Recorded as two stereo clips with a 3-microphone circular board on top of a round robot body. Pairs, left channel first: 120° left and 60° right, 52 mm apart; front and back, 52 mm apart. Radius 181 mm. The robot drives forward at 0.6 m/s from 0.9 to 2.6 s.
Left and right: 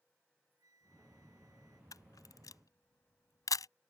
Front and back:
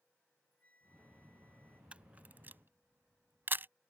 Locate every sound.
0.2 s a flute: 60° right; by 1.8 s 65° right
1.9 s a camera shutter: 110° left; by 3.7 s 125° left